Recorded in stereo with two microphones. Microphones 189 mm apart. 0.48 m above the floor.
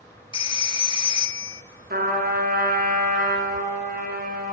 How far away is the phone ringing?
About 0.7 m.